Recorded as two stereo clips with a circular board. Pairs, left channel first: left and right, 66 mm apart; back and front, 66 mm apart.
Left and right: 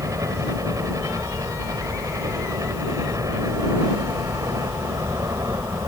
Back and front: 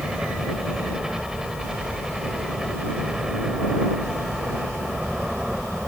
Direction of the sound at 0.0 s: 80° right.